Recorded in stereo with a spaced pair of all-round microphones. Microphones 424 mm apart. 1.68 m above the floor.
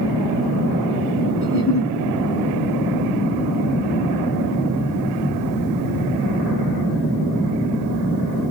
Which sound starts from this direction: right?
A giggle, at 1.4 s.